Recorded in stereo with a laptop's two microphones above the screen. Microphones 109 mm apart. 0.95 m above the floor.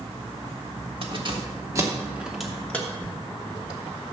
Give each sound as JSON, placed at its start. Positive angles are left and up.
{"t": 1.0, "sound": "keys jangling", "side_deg": -55, "distance_m": 1.3}